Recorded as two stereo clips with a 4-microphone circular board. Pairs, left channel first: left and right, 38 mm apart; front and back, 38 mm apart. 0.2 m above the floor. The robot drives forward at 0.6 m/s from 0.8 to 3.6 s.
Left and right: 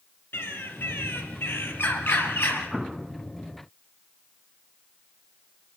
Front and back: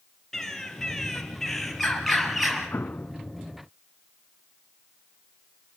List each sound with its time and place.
0.3 s a bird: 75° left, 4.5 m; by 2.7 s 90° left, 4.5 m
2.7 s an explosion: 10° right, 0.7 m; by 3.1 s 15° right, 0.5 m